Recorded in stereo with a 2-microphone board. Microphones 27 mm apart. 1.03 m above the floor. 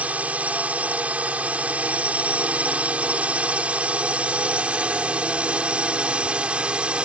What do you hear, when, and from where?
0.0 s a drone: 60° right (ahead or behind); by 7.0 s 45° right (ahead or behind)